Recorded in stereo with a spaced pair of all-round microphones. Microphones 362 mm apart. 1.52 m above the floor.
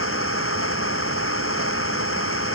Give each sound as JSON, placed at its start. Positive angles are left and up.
{"t": 0.0, "sound": "an engine running", "side_deg": 35}